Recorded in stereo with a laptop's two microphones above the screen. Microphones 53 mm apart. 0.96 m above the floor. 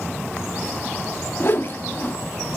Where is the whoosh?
45° left (ahead or behind), 0.6 m.